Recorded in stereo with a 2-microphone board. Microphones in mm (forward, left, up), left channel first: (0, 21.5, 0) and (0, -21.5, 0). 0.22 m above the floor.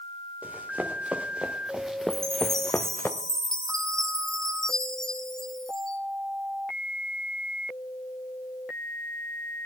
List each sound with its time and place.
0.4 s running footsteps: 40° right (ahead or behind), 2.5 m; by 3.1 s 60° left (ahead or behind), 1.2 m
2.1 s a chime: 10° left (ahead or behind), 1.8 m